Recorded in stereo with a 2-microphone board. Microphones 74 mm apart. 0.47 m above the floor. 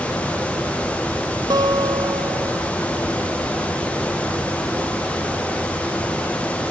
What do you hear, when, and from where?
1.5 s a guitar: 75° right (ahead or behind)